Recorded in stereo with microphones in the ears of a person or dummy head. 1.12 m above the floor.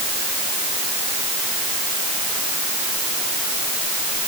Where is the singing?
I don't hear singing.